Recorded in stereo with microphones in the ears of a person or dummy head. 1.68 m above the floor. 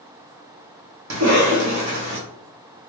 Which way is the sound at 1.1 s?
80° right.